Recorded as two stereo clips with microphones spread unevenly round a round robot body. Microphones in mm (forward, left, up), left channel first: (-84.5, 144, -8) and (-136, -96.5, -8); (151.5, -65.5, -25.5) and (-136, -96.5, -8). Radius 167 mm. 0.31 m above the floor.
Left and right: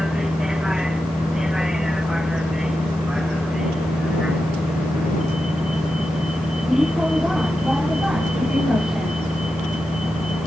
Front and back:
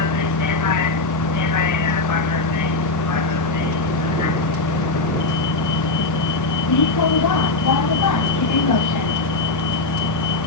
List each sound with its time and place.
0.0 s a vehicle: 15° right